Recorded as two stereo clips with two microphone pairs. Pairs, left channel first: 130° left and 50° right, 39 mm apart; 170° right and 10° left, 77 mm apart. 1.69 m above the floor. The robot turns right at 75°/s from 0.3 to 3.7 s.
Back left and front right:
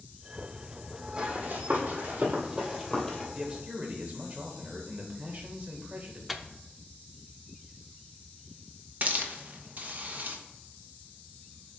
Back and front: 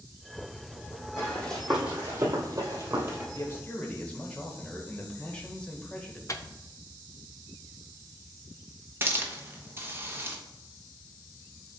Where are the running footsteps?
115° right, 3.5 m; by 3.2 s 65° left, 2 m.